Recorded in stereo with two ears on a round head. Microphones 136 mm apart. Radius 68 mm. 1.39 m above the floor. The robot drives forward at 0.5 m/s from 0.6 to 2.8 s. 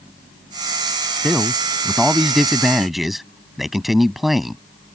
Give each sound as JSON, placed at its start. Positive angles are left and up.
{"t": 1.2, "sound": "a man speaking", "side_deg": 0}